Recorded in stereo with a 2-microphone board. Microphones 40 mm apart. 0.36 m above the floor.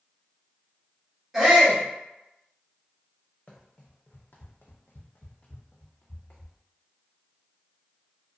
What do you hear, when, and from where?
1.3 s a shout: 5° right (ahead or behind), 1.5 m
3.5 s running footsteps: 30° left (ahead or behind), 0.9 m; by 6.5 s 35° left (ahead or behind), 1.1 m